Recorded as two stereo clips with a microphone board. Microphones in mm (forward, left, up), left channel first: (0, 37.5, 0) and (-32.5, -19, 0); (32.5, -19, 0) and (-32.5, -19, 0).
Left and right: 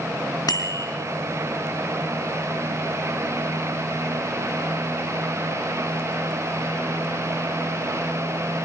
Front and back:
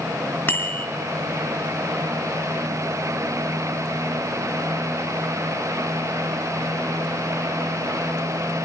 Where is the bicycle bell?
60° left, 3.5 m.